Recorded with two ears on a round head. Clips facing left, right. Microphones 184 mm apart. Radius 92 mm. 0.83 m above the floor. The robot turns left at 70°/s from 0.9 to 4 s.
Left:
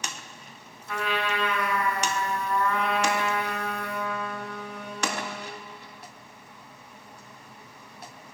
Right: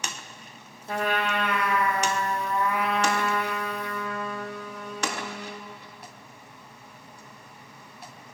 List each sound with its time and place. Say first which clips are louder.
0.9 s a trumpet: right 2 dB; 40° right, 1.2 m; by 5.7 s 105° left, 1.2 m